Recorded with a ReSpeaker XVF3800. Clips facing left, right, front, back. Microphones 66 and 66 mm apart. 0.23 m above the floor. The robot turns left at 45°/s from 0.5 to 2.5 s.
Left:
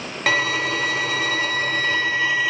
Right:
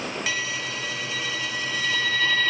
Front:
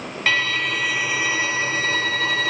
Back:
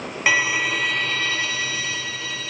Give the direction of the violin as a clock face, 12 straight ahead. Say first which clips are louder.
Left 14 dB, back 1 dB; 9 o'clock.